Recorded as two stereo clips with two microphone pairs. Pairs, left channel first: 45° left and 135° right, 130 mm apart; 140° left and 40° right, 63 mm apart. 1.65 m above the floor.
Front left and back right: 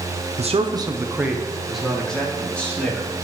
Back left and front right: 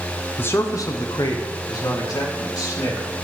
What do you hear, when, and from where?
0.4 s a man speaking: 160° right, 0.7 m; by 3.1 s 125° left, 3 m